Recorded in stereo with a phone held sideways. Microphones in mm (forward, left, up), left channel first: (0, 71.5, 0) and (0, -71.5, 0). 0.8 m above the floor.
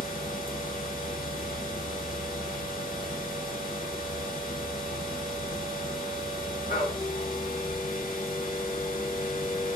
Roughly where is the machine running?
Left.